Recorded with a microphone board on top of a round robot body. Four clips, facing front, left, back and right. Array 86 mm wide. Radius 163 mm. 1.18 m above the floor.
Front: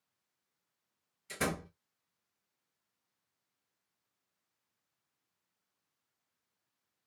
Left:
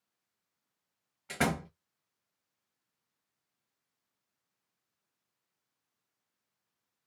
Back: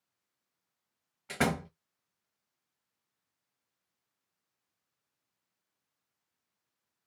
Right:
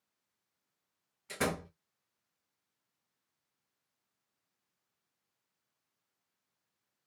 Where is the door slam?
155° left, 0.6 m.